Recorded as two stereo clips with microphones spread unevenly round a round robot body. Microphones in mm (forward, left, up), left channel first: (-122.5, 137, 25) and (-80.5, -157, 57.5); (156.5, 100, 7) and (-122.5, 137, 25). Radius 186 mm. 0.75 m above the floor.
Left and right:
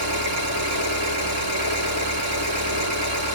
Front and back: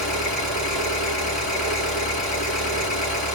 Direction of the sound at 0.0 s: 55° right.